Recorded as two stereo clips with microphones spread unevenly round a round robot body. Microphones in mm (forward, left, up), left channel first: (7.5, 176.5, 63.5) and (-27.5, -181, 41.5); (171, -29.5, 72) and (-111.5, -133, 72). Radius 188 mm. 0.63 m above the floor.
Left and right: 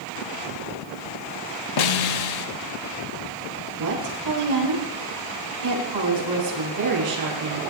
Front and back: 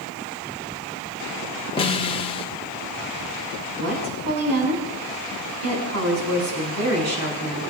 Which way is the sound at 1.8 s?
90° left.